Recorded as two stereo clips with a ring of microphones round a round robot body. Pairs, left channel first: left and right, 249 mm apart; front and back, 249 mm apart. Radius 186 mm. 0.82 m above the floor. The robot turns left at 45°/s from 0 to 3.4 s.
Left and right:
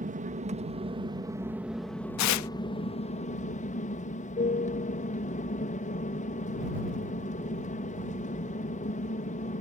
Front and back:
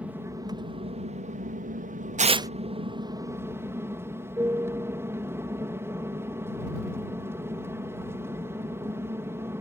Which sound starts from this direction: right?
An aircraft, at 0.0 s.